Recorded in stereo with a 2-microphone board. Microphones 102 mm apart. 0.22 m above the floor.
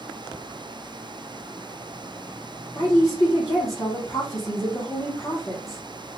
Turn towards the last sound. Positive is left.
turn(degrees=35)  # may be behind; listen again after turning